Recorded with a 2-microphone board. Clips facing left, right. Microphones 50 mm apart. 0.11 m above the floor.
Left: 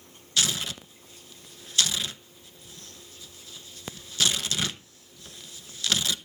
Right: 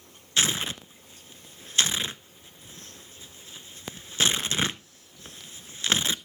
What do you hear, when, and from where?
0.4 s tearing paper: 30° right (ahead or behind), 0.5 m